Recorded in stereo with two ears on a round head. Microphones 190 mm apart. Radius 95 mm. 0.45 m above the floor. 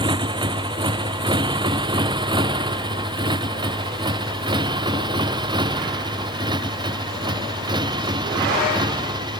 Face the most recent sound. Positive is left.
turn(degrees=-20)  # may be behind; listen again after turning